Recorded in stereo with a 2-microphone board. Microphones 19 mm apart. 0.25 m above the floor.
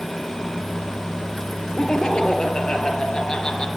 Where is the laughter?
45° left (ahead or behind), 6 m.